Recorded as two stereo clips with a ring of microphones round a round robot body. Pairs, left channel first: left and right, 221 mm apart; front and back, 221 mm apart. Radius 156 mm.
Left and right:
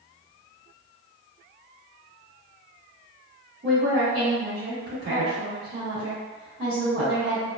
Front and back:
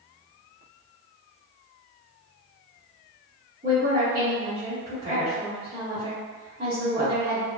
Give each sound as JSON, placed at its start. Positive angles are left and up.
{"t": 3.6, "sound": "a woman speaking", "azimuth_deg": -115, "distance_m": 0.8}